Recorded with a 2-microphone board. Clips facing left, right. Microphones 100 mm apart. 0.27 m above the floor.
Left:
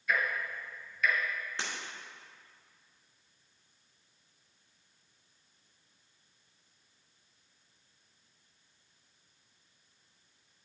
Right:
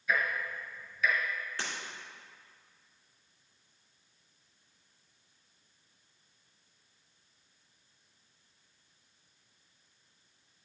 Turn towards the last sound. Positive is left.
turn(degrees=25)  # may be behind; listen again after turning